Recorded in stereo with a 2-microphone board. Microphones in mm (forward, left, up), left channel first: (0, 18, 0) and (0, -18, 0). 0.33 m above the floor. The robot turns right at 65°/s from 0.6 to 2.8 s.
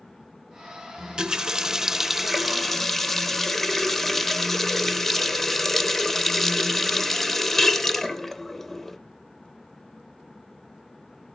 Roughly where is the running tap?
Right.